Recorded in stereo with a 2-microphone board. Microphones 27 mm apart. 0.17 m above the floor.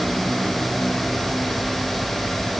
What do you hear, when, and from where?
Only background noise.